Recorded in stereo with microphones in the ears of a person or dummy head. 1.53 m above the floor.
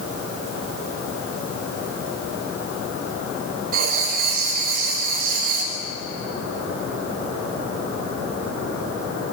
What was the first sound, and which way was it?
Writing, 50° right (ahead or behind).